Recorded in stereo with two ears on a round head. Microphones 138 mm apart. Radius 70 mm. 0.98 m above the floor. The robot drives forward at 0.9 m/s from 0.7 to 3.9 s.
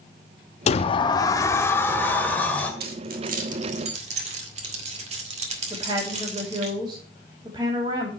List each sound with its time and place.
0.7 s a sliding door: 45° left (ahead or behind), 0.5 m; by 2.7 s 10° left (ahead or behind), 2 m
2.8 s keys jangling: 75° right (ahead or behind), 1.6 m; by 6.7 s 45° right (ahead or behind), 2 m
5.7 s a woman speaking: 30° right (ahead or behind), 3 m